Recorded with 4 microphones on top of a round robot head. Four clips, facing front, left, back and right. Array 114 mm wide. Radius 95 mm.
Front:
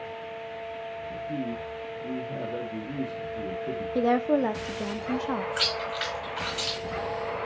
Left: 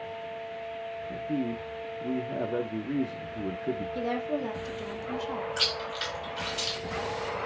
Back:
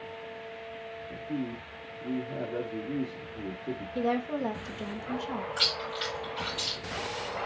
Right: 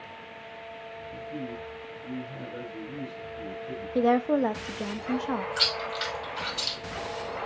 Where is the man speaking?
90° left, 1.2 m.